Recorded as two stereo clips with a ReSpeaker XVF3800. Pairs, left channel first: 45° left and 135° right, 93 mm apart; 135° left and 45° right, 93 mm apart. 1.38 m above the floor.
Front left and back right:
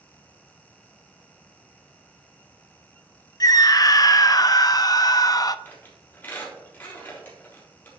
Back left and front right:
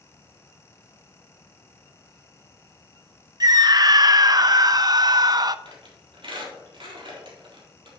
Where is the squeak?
25° right, 4.5 m.